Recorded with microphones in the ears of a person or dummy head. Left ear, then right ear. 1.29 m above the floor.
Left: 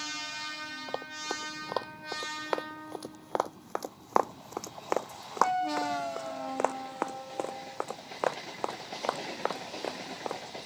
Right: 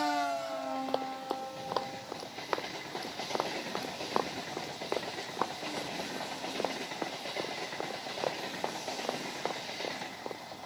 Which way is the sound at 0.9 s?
10° right (ahead or behind).